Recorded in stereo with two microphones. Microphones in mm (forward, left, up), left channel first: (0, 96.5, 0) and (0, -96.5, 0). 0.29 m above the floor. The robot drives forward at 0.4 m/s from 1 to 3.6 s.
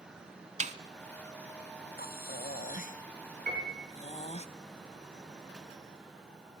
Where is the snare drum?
35° right (ahead or behind), 1.0 m.